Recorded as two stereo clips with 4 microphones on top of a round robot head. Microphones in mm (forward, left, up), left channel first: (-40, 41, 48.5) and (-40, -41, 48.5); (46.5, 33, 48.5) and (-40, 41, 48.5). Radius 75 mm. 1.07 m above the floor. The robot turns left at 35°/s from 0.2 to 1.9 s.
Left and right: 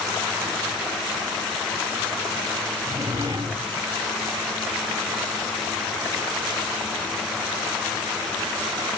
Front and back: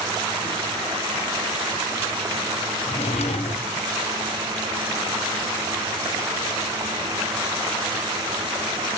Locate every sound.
2.9 s a drawer: 25° right, 1.3 m